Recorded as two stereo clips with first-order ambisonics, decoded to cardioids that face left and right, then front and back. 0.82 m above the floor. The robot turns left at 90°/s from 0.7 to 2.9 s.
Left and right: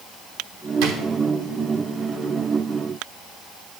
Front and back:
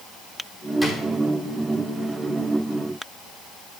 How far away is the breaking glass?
I don't hear breaking glass.